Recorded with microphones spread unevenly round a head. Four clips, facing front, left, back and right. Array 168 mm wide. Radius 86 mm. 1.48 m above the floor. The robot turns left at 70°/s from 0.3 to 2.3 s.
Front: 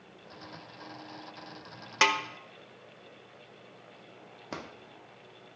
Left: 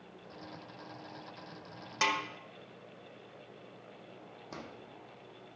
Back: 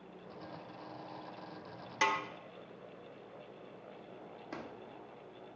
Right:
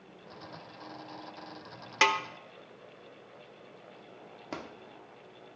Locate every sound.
2.0 s a snare drum: 40° right, 1.0 m; by 2.2 s 50° right, 1.0 m
4.5 s a drawer: 50° right, 0.9 m